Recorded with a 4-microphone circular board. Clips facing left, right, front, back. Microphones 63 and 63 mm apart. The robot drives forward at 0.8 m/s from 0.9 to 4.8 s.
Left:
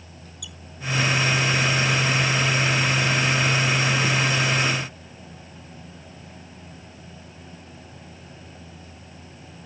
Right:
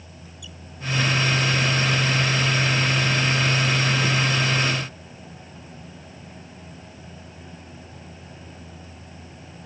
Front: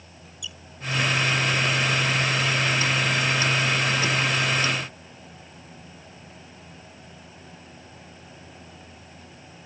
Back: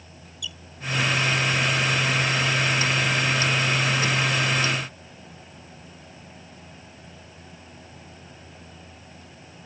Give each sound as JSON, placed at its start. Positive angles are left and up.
{"t": 0.4, "sound": "a squeak", "azimuth_deg": 70}